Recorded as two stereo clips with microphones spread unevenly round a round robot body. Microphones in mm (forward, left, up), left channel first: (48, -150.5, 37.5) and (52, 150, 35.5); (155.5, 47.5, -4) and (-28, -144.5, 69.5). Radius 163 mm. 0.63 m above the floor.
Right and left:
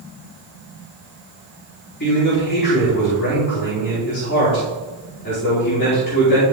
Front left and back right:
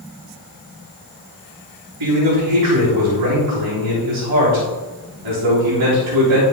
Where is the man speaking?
150° right, 4 m.